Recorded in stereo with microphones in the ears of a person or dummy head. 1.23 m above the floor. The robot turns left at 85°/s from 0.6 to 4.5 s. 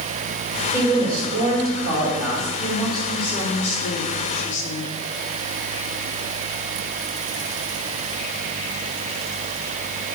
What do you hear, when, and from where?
0.7 s a woman speaking: 10° right, 3.5 m; by 2.5 s 160° right, 3.5 m
2.6 s a woman speaking: 150° right, 2.5 m; by 5.0 s 50° left, 2.5 m